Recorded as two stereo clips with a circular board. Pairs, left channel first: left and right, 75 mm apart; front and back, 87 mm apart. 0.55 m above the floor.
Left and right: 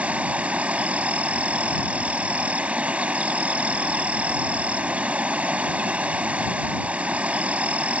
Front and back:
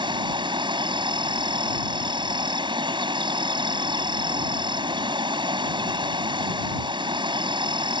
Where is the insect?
160° right.